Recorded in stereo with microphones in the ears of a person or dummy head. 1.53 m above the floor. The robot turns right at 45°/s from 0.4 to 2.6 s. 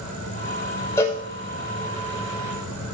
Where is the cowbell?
15° left (ahead or behind), 0.9 m; by 1.2 s 20° left (ahead or behind), 0.9 m.